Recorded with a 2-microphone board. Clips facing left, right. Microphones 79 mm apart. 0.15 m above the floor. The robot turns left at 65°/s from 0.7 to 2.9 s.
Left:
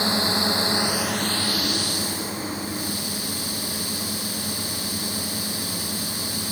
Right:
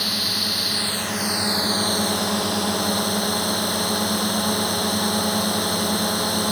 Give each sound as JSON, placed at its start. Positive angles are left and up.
{"t": 0.0, "sound": "a drone", "azimuth_deg": 25}